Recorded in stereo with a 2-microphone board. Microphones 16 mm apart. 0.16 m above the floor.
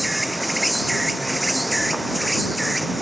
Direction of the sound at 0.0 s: Centre (ahead or behind).